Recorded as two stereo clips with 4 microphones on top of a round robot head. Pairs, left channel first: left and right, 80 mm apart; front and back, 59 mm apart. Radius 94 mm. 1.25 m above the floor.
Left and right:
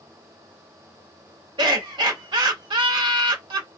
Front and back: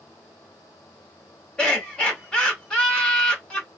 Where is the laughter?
75° right, 1.5 m.